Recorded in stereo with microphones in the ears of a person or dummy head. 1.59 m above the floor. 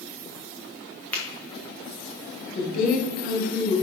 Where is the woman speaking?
50° left (ahead or behind), 1.8 m.